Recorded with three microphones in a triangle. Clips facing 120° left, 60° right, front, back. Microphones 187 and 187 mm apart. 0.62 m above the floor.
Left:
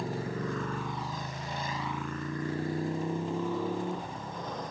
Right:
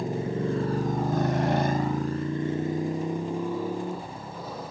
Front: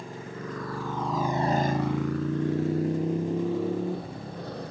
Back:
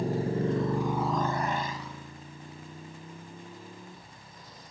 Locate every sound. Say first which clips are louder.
0.0 s a motorcycle: right 6 dB, back 9 dB; 130° right; by 4.7 s 25° left